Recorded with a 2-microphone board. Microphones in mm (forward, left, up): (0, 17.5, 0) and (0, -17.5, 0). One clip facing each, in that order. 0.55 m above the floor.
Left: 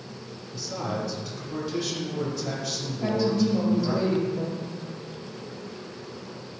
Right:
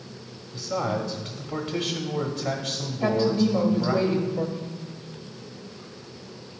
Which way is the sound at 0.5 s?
35° right (ahead or behind).